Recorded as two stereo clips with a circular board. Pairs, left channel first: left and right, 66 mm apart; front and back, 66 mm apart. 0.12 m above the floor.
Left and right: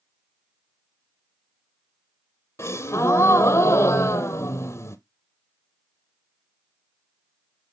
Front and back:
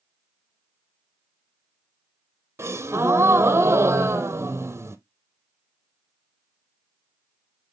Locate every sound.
2.6 s a gasp: 135° left, 0.8 m